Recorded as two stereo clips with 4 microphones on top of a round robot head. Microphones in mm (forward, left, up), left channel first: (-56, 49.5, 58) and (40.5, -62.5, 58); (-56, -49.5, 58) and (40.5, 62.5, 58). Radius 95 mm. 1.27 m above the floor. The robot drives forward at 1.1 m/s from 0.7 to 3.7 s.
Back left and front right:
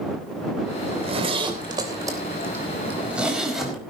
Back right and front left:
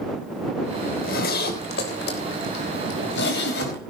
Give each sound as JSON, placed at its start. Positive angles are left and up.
{"t": 0.9, "sound": "a zipper", "azimuth_deg": -95, "distance_m": 3.0}